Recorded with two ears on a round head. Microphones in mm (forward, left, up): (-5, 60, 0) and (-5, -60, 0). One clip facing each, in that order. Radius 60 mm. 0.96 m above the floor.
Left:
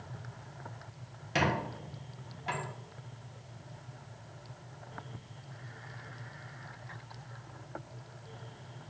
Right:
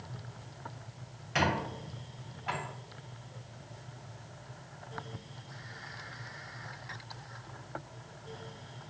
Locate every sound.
1.4 s a squeak: 35° left (ahead or behind), 0.9 m